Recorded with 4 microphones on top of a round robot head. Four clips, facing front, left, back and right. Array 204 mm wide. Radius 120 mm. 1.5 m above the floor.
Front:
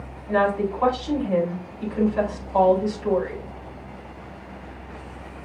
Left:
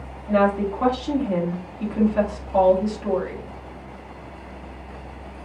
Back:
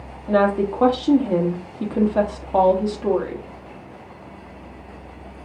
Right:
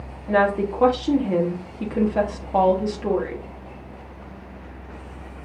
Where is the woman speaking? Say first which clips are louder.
Even, back 3 dB; 150° right, 1.2 m.